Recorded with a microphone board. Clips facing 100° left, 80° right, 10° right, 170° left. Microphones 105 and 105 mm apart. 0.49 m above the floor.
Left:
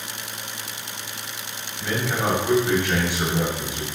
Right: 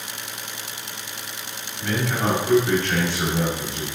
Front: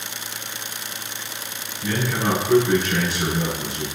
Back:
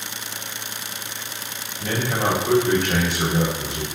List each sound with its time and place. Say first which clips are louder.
1.8 s a man speaking: right 1 dB, even; straight behind, 2.5 m